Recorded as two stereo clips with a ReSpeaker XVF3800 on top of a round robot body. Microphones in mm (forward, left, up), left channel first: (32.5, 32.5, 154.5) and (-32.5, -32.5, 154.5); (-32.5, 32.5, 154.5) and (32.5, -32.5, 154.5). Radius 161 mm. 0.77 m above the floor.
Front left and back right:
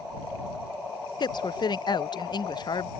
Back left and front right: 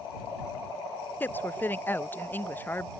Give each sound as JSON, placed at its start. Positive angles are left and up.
{"t": 1.2, "sound": "a woman speaking", "azimuth_deg": 70}